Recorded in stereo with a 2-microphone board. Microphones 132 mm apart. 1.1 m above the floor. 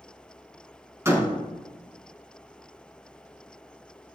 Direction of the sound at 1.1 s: 20° right (ahead or behind).